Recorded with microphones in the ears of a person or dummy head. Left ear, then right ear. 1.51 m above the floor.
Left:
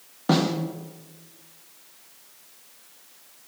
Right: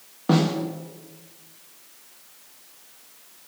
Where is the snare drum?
20° left (ahead or behind), 1.6 m.